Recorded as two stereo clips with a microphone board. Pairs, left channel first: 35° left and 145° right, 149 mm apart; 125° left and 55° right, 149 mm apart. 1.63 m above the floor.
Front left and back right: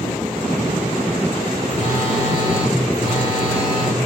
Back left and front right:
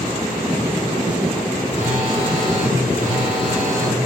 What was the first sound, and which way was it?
A phone buzzing, 95° right.